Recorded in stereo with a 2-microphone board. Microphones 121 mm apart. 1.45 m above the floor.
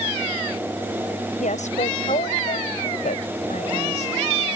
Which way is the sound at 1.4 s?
90° left.